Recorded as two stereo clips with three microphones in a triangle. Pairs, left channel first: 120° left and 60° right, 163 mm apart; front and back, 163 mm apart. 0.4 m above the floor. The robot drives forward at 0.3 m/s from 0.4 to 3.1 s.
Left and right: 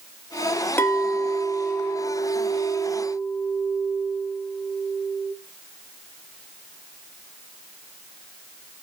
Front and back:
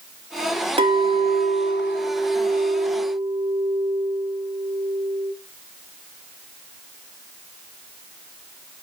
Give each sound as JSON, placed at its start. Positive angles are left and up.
{"t": 0.8, "sound": "a clink", "azimuth_deg": -175, "distance_m": 0.5}